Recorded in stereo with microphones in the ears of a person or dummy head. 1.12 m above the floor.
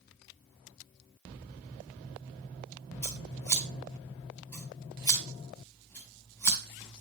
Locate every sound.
3.0 s scissors: 15° left (ahead or behind), 2 m